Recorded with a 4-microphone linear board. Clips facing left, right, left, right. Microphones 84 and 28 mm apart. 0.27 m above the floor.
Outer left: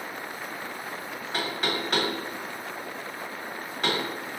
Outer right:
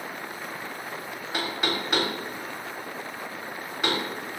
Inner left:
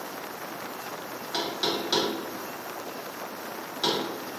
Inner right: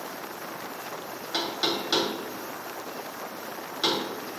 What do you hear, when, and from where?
1.3 s knocking: 5° right (ahead or behind), 1.2 m